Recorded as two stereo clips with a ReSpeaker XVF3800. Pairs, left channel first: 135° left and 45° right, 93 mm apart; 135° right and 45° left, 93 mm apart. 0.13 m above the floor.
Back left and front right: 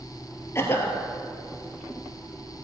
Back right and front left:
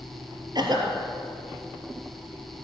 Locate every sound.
0.6 s a cough: 75° left, 2.5 m